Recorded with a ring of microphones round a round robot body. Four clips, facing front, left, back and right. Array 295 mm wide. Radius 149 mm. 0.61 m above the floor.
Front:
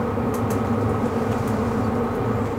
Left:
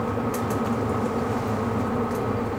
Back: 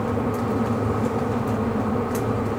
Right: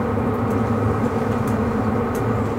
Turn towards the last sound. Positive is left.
No sound to turn to.